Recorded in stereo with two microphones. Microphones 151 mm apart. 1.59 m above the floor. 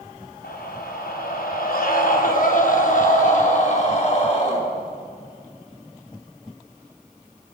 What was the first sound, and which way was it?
A scream, 85° left.